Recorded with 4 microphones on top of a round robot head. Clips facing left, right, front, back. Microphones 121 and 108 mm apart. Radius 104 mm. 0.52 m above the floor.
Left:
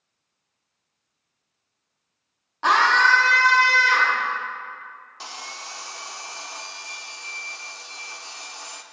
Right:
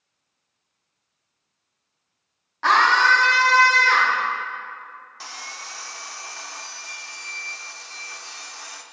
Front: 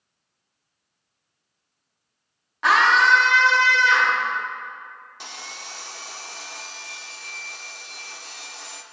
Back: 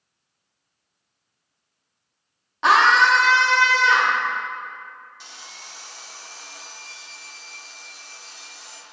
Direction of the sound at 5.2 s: 20° left.